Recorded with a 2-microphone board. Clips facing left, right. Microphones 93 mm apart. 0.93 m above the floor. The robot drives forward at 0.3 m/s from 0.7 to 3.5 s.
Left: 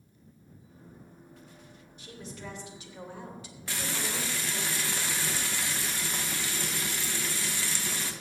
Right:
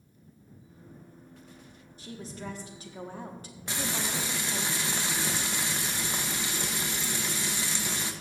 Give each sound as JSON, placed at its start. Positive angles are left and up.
{"t": 2.0, "sound": "a woman speaking", "side_deg": -35, "distance_m": 1.9}
{"t": 3.7, "sound": "frying", "side_deg": -20, "distance_m": 0.9}